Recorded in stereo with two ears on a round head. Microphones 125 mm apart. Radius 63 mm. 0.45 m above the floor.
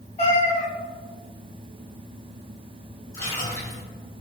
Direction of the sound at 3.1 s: 20° left (ahead or behind).